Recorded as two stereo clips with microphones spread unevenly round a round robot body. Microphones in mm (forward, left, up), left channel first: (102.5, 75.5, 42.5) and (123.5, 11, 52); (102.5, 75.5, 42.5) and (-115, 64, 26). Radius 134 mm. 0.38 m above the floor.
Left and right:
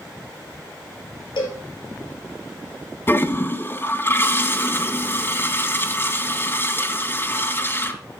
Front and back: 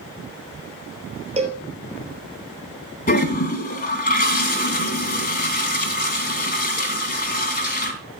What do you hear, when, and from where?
1.4 s a cowbell: 120° left, 3 m
3.1 s a toilet flushing: 55° left, 2.5 m